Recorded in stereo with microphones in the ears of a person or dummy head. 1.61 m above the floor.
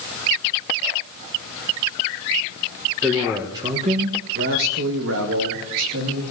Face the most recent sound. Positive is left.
turn(degrees=-85)